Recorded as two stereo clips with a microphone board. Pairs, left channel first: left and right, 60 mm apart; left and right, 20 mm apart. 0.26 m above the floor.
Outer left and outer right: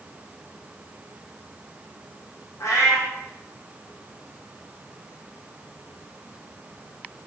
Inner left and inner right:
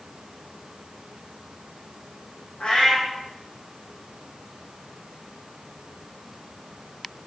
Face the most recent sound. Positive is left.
turn(degrees=80)